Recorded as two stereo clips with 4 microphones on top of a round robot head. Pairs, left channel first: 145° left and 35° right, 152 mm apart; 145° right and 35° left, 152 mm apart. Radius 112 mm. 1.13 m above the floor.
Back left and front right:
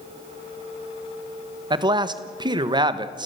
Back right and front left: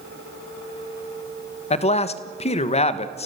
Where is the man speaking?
95° right, 1.3 m.